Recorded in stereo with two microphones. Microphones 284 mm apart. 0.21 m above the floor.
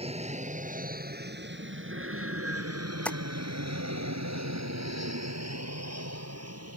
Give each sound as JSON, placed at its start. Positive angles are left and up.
{"t": 0.0, "sound": "an aircraft", "side_deg": -20}
{"t": 3.0, "sound": "tapping", "side_deg": 5}